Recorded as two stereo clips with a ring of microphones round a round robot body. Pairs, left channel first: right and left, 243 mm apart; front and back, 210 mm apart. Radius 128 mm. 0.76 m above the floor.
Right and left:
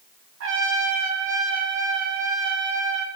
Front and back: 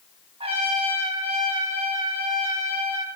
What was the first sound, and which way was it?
A trumpet, 120° left.